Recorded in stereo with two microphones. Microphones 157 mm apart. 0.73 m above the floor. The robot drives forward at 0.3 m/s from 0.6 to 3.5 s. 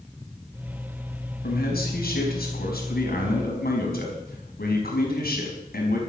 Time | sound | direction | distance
1.4 | a man speaking | 85° left | 4.5 m